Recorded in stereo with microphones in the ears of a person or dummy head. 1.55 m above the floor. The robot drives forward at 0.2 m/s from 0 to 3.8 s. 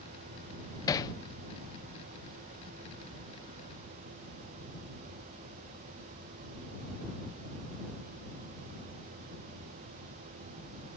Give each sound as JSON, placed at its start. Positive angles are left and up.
{"t": 0.9, "sound": "hammering", "side_deg": 20}